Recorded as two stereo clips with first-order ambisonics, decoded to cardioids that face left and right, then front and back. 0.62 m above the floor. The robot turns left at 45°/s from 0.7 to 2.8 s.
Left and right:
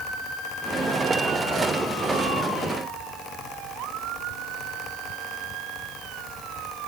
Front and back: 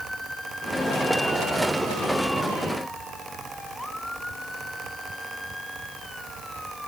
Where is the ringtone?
No ringtone in this recording.